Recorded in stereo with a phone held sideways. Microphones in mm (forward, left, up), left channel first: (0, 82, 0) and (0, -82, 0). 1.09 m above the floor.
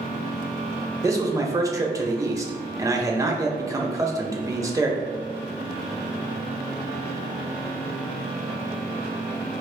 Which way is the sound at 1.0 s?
20° right (ahead or behind).